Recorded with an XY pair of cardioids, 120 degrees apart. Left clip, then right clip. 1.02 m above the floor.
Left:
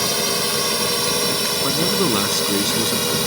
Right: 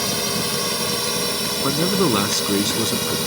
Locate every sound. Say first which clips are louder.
0.0 s a drone: left 2 dB; 20° left
1.6 s a man speaking: right 2 dB; 10° right